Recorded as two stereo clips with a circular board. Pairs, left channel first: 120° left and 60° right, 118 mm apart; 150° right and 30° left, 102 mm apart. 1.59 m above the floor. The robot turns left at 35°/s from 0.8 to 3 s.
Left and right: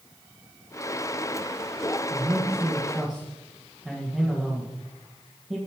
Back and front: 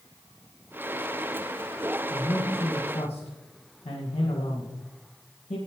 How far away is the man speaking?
About 1.8 m.